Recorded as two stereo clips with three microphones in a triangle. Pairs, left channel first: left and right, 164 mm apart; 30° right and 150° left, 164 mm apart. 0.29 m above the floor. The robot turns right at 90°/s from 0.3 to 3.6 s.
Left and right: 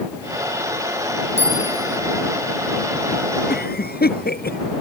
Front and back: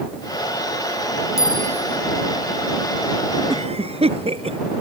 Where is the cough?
90° left; by 4.6 s 100° left.